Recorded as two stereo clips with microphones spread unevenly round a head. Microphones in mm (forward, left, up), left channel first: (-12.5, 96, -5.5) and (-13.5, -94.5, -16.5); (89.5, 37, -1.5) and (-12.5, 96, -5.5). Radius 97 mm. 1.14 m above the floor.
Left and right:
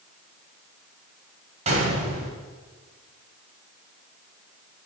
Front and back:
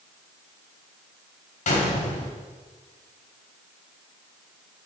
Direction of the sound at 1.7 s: 30° right.